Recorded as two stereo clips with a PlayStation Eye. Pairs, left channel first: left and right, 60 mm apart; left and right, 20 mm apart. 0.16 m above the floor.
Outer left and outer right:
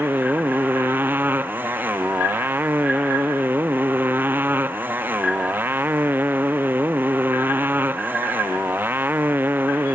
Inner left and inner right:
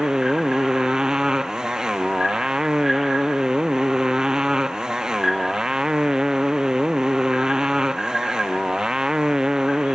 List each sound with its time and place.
0.0 s a motorcycle: 35° right (ahead or behind)